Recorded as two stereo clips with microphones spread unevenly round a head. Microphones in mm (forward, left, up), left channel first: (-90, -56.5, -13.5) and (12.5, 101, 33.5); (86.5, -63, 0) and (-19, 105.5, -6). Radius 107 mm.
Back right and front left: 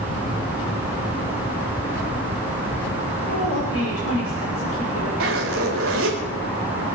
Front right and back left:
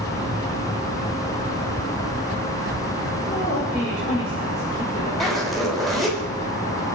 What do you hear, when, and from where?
3.3 s a woman speaking: 125° right, 5.5 m
5.2 s a zipper: 30° left, 4.5 m